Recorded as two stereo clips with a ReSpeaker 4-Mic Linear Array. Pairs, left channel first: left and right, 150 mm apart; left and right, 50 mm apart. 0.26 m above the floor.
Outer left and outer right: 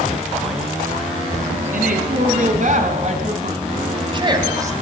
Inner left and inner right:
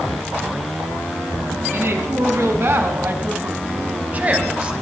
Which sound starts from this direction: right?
A woman speaking, at 1.7 s.